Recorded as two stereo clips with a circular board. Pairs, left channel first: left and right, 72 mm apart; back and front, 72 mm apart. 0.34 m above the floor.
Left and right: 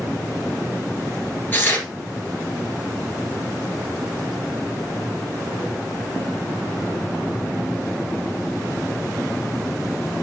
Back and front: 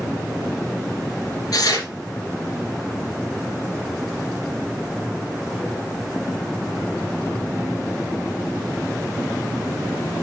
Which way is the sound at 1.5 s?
150° left.